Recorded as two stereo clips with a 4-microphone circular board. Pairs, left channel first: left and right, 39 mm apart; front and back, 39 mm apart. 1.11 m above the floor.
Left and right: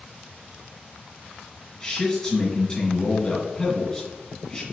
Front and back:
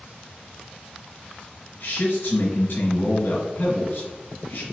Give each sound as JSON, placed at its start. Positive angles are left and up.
{"t": 1.8, "sound": "a man speaking", "azimuth_deg": 20, "distance_m": 1.2}